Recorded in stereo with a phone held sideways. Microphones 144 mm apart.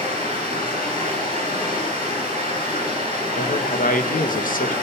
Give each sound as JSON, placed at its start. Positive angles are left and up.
{"t": 0.0, "sound": "running water", "side_deg": 85, "distance_m": 10.0}
{"t": 3.4, "sound": "a man speaking", "side_deg": 75, "distance_m": 1.2}